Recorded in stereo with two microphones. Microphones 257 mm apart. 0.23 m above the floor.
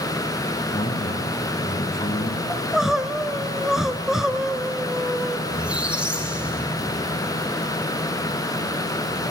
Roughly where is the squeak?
Centre.